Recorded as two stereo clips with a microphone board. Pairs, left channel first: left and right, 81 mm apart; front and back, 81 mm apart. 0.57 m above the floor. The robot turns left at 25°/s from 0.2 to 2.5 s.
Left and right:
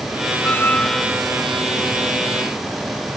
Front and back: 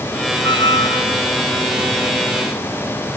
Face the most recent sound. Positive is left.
turn(degrees=-25)